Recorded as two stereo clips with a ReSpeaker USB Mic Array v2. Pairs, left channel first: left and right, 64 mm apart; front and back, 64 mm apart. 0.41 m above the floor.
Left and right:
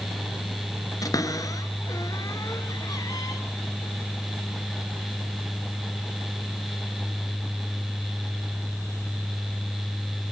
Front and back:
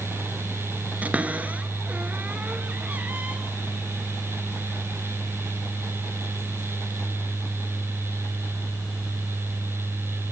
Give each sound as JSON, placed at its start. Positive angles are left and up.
{"t": 1.0, "sound": "a cupboard door", "azimuth_deg": 115, "distance_m": 2.0}